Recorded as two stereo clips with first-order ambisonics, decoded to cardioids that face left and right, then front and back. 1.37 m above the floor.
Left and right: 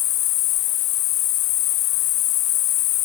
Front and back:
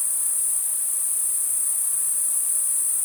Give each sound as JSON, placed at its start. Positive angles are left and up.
{"t": 0.0, "sound": "an insect", "azimuth_deg": 70, "distance_m": 2.5}